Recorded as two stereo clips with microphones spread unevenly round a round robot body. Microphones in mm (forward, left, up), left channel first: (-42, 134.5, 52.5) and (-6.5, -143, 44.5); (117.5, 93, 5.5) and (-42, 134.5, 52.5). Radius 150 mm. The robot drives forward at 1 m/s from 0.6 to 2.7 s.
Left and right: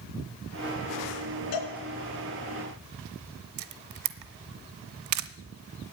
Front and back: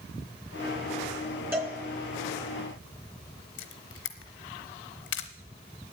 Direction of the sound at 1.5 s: 85° left.